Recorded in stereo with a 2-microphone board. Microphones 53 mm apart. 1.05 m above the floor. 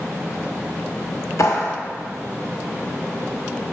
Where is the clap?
70° left (ahead or behind), 1.1 m.